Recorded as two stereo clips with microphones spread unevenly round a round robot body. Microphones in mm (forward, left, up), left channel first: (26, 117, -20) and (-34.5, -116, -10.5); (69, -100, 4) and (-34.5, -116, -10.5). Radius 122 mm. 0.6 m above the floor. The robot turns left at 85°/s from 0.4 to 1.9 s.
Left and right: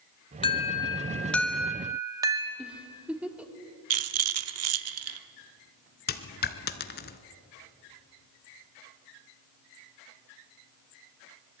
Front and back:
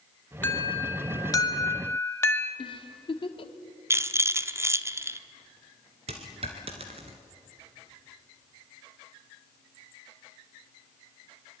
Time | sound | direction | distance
0.4 | an alarm | 80° left | 1.9 m
2.6 | a giggle | 20° right | 1.6 m
3.9 | a rattle | 120° right | 1.0 m
6.1 | a dropped coin | 125° left | 1.3 m